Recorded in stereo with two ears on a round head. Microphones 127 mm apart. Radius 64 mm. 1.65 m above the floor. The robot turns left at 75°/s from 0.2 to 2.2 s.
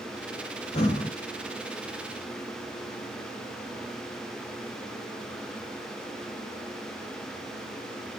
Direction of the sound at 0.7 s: 45° left (ahead or behind).